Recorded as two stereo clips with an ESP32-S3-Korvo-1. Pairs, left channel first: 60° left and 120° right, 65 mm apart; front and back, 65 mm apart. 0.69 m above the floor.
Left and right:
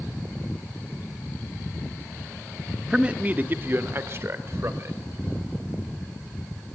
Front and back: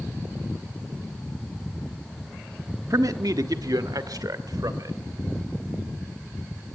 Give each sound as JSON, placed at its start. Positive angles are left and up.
{"t": 2.9, "sound": "a man speaking", "azimuth_deg": 165, "distance_m": 0.9}